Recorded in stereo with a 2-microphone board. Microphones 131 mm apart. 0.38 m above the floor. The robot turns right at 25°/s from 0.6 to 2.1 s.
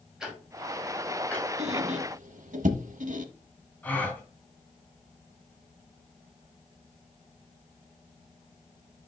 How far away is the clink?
I don't hear a clink.